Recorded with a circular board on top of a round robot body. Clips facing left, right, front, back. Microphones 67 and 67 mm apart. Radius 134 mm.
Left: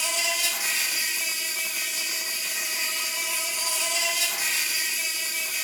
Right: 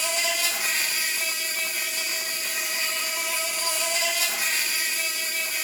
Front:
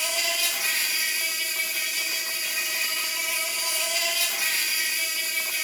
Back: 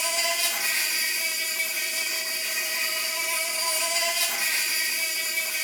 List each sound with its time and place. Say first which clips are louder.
0.0 s an insect: right 2 dB, back 1 dB; 120° right, 1.1 m